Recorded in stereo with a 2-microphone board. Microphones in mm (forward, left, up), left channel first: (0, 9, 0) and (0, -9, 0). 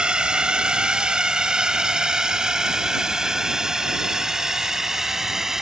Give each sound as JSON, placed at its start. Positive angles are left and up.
{"t": 0.0, "sound": "a drone", "side_deg": -55}